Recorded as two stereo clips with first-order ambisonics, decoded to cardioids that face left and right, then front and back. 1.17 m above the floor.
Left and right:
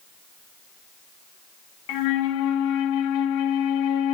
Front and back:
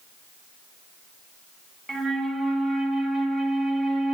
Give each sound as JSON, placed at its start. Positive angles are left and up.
{"t": 1.9, "sound": "a flute", "azimuth_deg": 100, "distance_m": 0.8}